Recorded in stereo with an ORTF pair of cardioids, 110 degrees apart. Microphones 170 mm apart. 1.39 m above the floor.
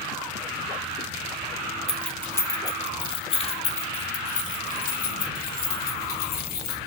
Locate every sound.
1.9 s keys jangling: straight ahead, 1.1 m; by 6.8 s 60° left, 3 m